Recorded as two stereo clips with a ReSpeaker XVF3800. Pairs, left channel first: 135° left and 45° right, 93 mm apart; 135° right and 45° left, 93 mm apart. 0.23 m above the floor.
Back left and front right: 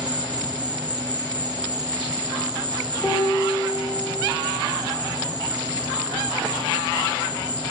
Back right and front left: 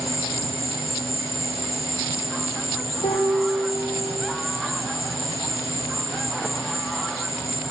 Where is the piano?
155° right, 9.5 m.